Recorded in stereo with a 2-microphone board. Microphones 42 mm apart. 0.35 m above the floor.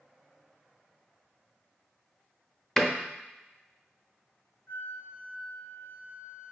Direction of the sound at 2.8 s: 5° left (ahead or behind).